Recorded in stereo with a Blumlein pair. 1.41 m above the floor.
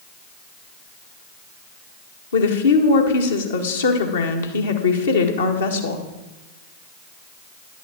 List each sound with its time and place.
2.3 s a woman speaking: 65° left, 1.8 m